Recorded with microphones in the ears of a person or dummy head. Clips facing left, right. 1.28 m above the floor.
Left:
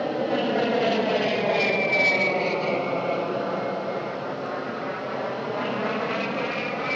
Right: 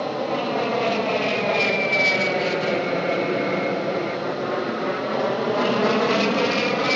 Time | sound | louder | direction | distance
0.0 | an aircraft | even | 15° left (ahead or behind) | ?